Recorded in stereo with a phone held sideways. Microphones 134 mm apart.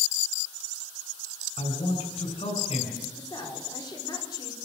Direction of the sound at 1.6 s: 45° left (ahead or behind).